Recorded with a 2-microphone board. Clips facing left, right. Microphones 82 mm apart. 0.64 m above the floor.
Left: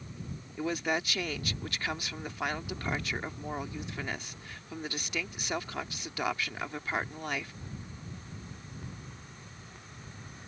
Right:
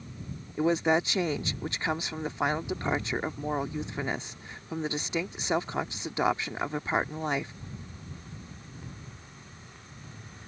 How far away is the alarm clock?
I don't hear an alarm clock.